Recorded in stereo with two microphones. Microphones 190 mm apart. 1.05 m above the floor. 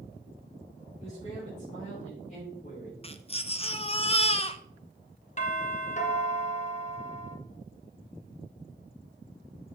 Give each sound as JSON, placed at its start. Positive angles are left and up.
{"t": 1.0, "sound": "a man speaking", "side_deg": 30, "distance_m": 4.5}
{"t": 3.0, "sound": "a baby crying", "side_deg": 30, "distance_m": 0.6}
{"t": 5.4, "sound": "a doorbell", "side_deg": 35, "distance_m": 1.3}